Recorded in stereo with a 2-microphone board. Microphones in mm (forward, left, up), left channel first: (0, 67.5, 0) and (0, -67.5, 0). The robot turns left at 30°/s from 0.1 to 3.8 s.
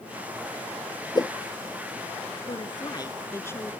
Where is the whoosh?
30° left (ahead or behind); by 1.3 s 25° left (ahead or behind).